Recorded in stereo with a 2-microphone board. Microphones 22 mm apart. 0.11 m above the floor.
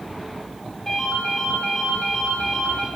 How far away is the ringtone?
About 5 m.